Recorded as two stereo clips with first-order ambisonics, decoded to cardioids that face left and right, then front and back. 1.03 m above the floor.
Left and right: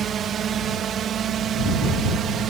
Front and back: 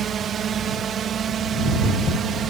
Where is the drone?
135° right.